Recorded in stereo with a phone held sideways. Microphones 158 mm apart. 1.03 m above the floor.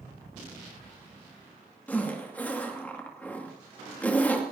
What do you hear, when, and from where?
1.9 s a zipper: 10° left (ahead or behind), 2.0 m